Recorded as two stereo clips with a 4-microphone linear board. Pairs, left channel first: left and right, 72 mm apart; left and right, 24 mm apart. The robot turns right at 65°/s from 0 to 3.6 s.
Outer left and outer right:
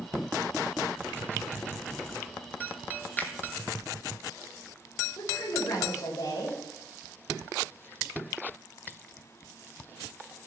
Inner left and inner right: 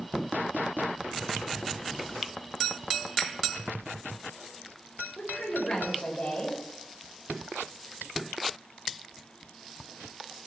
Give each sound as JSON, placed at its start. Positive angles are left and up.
{"t": 3.2, "sound": "a finger snap", "side_deg": 25, "distance_m": 1.4}
{"t": 5.2, "sound": "a woman speaking", "side_deg": 55, "distance_m": 4.0}